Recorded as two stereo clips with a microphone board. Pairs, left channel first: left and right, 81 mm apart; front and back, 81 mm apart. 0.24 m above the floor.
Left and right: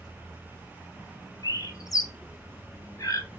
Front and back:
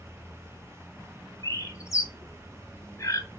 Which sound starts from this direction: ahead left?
A bird, at 1.4 s.